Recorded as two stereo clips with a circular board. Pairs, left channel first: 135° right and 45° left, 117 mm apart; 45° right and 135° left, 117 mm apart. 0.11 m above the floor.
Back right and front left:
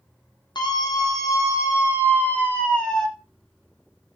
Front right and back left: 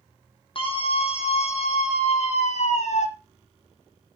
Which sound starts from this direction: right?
A scream, at 0.6 s.